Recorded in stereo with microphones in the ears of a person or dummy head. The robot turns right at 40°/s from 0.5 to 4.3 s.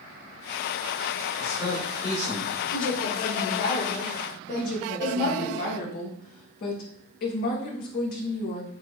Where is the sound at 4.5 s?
55° left (ahead or behind), 1.0 m.